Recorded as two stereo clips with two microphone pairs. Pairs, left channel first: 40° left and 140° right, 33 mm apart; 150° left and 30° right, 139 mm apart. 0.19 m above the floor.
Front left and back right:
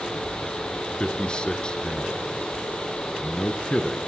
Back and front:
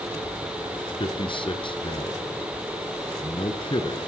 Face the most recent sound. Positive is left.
turn(degrees=100)